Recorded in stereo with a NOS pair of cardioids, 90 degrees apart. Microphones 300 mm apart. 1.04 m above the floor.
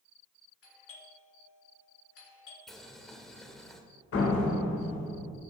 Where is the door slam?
50° left, 3 m.